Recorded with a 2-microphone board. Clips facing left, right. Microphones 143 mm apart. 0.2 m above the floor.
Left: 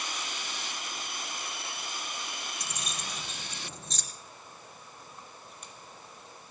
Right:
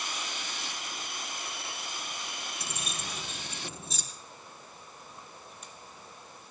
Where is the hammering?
No hammering in this recording.